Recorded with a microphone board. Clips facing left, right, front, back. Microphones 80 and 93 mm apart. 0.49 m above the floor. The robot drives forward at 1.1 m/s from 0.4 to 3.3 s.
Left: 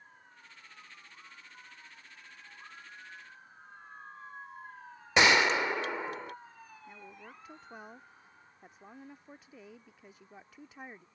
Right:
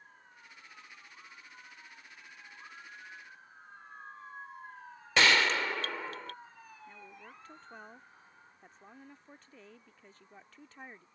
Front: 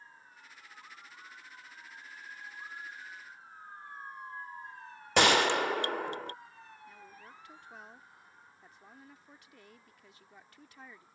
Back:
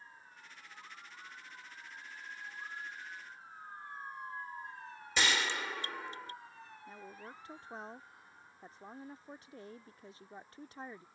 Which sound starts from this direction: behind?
A woman speaking, at 6.9 s.